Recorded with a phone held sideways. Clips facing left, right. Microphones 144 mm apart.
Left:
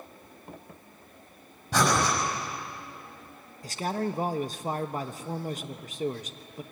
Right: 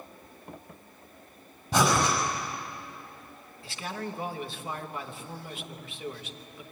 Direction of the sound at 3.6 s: 45° left (ahead or behind).